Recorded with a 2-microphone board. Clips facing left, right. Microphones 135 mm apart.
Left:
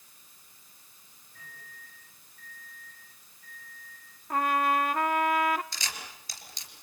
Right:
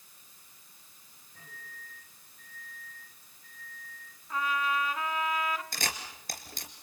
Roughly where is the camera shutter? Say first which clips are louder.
Right 4 dB; right.